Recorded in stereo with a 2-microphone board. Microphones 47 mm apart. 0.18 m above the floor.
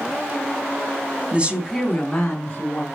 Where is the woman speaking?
30° right (ahead or behind), 1.1 m; by 2.9 s 25° left (ahead or behind), 2.5 m.